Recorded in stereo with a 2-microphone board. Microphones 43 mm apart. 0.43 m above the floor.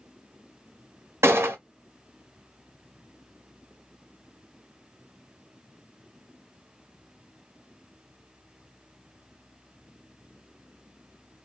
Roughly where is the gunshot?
Right.